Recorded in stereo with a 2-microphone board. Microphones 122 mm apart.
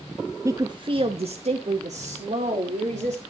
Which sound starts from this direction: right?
A woman speaking, at 0.5 s.